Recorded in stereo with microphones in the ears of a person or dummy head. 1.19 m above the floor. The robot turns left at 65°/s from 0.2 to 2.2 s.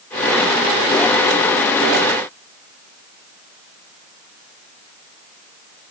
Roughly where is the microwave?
I don't hear a microwave.